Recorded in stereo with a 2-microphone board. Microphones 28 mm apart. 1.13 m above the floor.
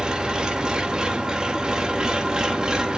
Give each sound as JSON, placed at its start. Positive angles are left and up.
{"t": 0.0, "sound": "an engine running", "side_deg": -30, "distance_m": 1.1}